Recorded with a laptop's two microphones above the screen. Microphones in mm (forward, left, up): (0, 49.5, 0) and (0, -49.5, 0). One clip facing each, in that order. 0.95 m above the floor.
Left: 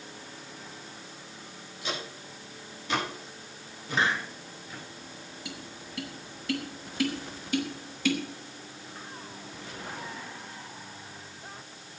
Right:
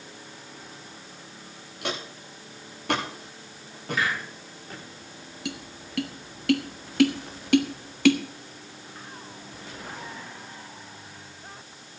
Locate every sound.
1.8 s footsteps: 75° right (ahead or behind), 9 m; by 4.8 s 60° right (ahead or behind), 10.5 m
3.9 s a hiss: 30° left (ahead or behind), 4 m
5.5 s tapping: 80° right, 1.2 m